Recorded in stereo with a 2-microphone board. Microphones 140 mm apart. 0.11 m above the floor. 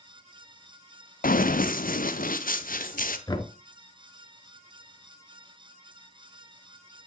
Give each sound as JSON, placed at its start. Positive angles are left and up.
{"t": 1.2, "sound": "running footsteps", "side_deg": 85, "distance_m": 0.9}
{"t": 3.3, "sound": "knocking", "side_deg": 30, "distance_m": 1.0}